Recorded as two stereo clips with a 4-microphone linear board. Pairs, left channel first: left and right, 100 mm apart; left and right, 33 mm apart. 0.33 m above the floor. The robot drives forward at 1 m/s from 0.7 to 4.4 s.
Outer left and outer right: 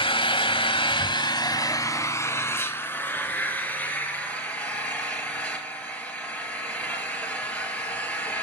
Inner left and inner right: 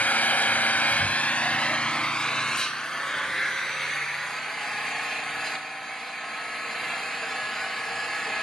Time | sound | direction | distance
0.0 | an engine running | 60° left (ahead or behind) | 1.1 m